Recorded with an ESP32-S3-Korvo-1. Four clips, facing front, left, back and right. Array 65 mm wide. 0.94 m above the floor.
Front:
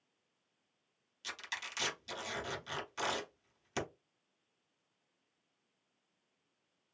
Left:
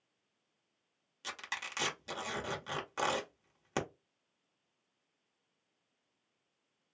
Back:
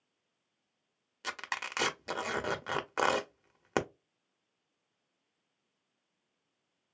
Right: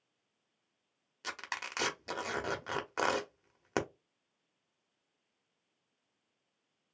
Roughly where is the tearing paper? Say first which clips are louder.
Right 2 dB, back 6 dB; behind.